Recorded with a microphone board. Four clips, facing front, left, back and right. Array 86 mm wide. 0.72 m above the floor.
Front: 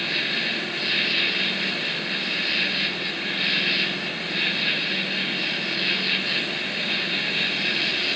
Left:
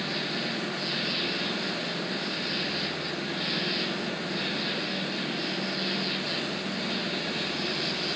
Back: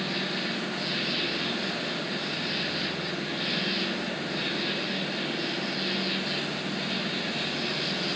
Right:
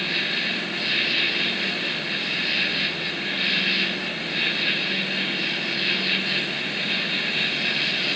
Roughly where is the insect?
Ahead right.